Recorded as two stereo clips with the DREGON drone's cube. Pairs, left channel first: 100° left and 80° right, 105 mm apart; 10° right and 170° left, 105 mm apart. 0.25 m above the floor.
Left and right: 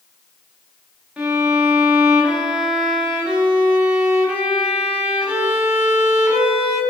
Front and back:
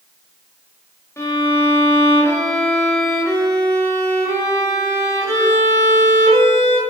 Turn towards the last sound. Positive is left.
turn(degrees=-20)